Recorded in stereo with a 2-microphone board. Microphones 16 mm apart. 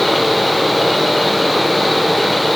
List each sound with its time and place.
Only background noise.